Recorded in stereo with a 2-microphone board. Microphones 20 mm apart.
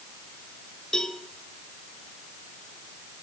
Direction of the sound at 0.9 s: 30° left (ahead or behind).